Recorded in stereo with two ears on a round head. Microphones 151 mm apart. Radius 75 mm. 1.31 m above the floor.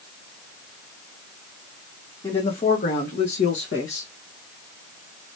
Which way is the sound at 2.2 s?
30° left (ahead or behind).